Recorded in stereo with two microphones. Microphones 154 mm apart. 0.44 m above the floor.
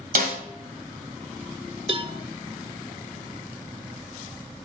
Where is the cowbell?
35° right (ahead or behind), 0.6 m.